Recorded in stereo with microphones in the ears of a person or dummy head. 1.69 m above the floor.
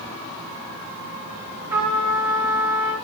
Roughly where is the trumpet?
Centre.